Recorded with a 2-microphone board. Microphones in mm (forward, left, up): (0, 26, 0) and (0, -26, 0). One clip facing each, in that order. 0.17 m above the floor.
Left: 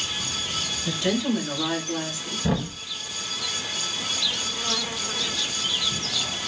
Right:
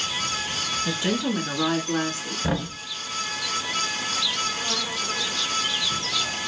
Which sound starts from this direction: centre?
A woman speaking, at 0.8 s.